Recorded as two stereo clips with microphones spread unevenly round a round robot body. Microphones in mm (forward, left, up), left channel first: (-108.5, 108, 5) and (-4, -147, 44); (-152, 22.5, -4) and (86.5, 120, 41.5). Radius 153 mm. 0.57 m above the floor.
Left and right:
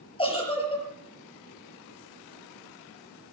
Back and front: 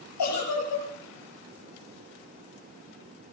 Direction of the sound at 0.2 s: 175° right.